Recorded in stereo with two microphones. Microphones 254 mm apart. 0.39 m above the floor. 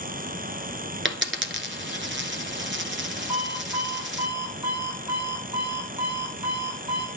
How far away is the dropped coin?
About 1.5 m.